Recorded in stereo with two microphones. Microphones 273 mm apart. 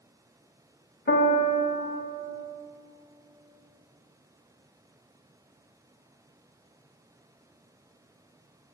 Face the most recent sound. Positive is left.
turn(degrees=35)  # may be behind; listen again after turning